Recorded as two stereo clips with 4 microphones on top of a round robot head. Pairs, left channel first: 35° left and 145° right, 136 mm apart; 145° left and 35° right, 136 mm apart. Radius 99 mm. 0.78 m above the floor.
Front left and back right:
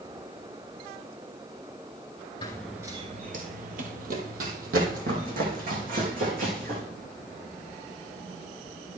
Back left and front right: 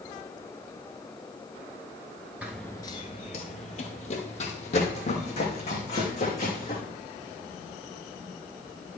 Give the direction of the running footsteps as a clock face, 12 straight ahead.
11 o'clock.